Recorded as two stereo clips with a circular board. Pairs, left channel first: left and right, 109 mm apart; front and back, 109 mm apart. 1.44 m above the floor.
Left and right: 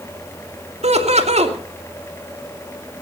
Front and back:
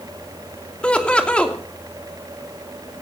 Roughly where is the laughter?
Right.